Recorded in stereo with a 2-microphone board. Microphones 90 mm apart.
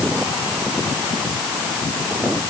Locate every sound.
Only background noise.